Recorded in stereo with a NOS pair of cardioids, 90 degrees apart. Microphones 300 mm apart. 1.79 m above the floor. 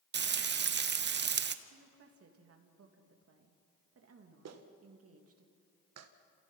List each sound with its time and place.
0.1 s frying: 35° right, 0.9 m
1.6 s a woman speaking: 50° right, 3 m
4.5 s a clap: 60° right, 1.8 m